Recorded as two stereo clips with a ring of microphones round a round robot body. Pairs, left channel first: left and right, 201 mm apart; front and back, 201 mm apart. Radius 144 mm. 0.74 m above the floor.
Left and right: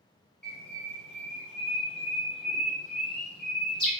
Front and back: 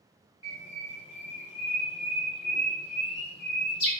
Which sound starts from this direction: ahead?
A bird, at 0.4 s.